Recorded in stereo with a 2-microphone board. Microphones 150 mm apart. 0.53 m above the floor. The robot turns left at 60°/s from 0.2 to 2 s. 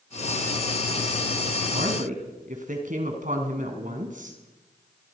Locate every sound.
1.7 s a woman speaking: 75° right (ahead or behind), 4 m; by 4.4 s 60° right (ahead or behind), 4 m